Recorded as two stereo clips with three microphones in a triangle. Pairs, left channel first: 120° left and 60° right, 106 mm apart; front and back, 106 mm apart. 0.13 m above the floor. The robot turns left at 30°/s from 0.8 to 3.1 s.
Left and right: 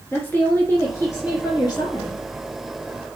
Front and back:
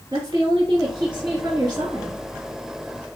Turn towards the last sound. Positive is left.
turn(degrees=110)